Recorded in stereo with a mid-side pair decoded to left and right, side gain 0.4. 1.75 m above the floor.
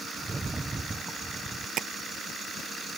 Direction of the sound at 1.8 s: 65° right.